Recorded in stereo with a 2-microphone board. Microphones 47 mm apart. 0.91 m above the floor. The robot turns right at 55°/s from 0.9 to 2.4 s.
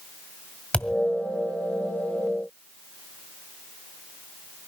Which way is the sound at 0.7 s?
20° left (ahead or behind).